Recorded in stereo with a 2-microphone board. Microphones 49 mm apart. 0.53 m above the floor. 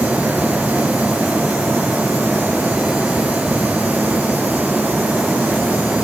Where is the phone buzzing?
I don't hear a phone buzzing.